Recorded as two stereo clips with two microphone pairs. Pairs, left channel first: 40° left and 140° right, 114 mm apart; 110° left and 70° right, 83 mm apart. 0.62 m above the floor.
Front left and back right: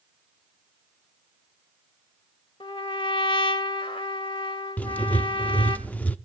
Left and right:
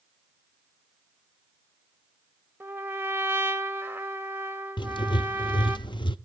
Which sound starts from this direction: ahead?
A trumpet, at 2.6 s.